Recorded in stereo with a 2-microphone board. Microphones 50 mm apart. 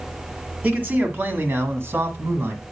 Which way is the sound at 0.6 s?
35° right (ahead or behind).